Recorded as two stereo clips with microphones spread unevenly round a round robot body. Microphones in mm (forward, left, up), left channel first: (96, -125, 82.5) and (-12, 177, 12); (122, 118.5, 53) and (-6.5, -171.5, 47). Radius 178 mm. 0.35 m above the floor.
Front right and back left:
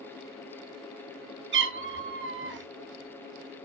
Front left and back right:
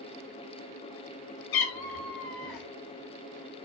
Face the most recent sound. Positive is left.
turn(degrees=55)